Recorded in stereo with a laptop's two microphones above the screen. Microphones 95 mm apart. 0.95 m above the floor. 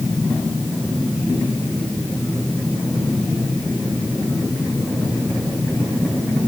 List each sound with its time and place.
Only background noise.